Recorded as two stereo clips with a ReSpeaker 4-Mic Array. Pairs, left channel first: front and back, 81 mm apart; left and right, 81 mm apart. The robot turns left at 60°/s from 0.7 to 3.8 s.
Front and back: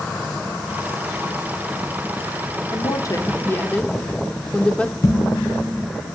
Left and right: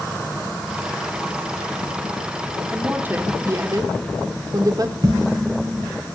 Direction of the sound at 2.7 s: 10° right.